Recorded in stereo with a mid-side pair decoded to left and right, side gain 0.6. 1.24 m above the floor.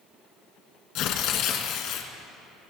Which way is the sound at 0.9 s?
70° left.